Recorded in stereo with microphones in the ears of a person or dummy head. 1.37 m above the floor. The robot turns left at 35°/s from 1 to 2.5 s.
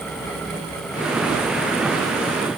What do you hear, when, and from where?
Only background noise.